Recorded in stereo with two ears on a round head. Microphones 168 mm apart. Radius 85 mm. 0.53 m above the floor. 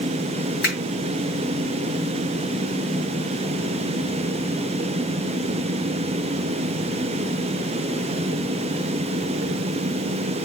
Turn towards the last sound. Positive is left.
turn(degrees=55)  # may be behind; listen again after turning